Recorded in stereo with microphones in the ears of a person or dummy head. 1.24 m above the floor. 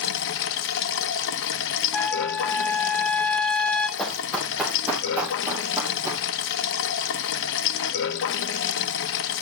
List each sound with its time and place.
0.0 s running water: 65° left (ahead or behind), 0.9 m
1.9 s a trumpet: 10° left (ahead or behind), 0.8 m
4.0 s running footsteps: 5° left (ahead or behind), 2.5 m; by 6.2 s 20° right (ahead or behind), 3 m